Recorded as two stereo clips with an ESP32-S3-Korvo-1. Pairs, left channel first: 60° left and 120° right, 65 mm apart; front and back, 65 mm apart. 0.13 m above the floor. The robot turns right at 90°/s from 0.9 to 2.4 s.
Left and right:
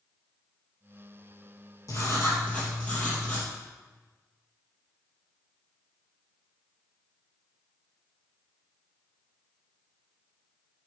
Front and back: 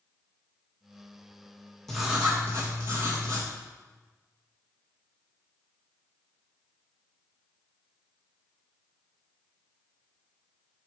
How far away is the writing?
About 3 m.